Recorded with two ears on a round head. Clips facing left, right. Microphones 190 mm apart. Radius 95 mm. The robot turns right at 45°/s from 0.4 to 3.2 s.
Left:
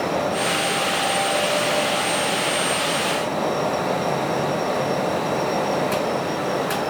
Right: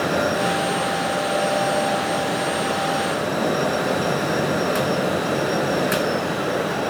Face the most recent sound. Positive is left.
No sound to turn to.